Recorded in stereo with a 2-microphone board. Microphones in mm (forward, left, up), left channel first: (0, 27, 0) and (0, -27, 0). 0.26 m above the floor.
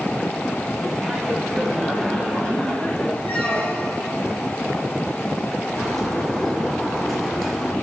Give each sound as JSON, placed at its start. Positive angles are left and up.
{"t": 1.0, "sound": "laughter", "side_deg": 0, "distance_m": 2.5}
{"t": 3.2, "sound": "a squeak", "side_deg": 40, "distance_m": 4.0}
{"t": 5.8, "sound": "a bird", "side_deg": 10, "distance_m": 3.5}